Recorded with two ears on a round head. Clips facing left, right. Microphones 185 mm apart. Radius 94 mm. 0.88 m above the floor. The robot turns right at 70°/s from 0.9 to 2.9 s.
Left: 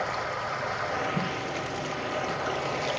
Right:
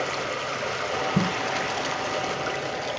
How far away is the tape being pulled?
About 0.6 m.